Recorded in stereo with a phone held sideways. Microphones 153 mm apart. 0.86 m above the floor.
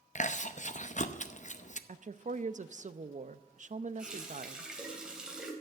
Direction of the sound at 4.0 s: 5° right (ahead or behind).